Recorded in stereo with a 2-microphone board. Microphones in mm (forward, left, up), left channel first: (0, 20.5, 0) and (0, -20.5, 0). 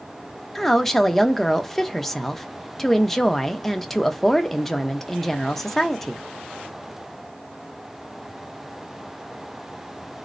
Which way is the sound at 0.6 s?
5° left (ahead or behind).